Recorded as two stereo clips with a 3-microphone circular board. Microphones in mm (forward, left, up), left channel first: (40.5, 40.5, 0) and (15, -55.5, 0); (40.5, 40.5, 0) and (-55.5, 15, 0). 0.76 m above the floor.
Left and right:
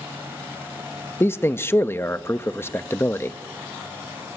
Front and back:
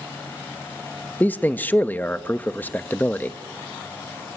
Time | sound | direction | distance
1.2 | a man speaking | 60° left | 0.8 m